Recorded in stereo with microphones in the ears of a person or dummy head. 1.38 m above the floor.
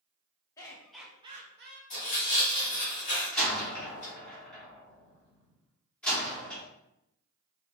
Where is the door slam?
10° left (ahead or behind), 1.5 m.